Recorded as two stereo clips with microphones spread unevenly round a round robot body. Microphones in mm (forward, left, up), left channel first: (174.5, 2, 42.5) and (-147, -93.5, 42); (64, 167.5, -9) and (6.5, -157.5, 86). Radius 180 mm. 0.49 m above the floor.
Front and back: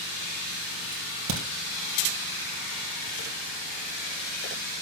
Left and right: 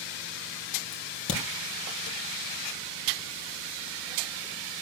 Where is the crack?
140° left, 2.5 m.